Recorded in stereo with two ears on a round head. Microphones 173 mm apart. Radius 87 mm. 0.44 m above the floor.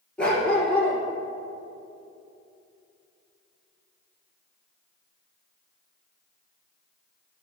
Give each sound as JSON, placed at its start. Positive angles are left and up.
{"t": 0.2, "sound": "a dog barking", "side_deg": 5, "distance_m": 1.9}